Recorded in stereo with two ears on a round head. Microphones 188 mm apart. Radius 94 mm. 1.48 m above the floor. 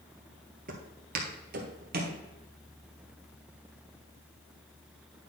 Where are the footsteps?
45° right (ahead or behind), 1.9 m.